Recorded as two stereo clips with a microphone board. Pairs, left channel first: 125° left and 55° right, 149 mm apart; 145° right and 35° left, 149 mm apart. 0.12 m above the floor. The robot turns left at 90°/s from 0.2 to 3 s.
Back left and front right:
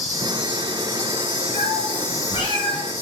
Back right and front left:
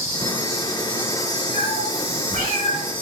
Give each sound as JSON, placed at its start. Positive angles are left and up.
{"t": 0.0, "sound": "an insect", "azimuth_deg": -20, "distance_m": 2.0}
{"t": 1.5, "sound": "a cat meowing", "azimuth_deg": 145, "distance_m": 2.5}